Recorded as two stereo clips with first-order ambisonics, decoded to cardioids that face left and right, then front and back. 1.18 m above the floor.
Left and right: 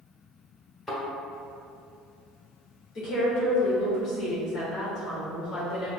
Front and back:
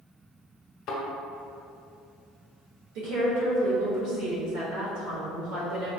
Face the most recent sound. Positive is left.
turn(degrees=155)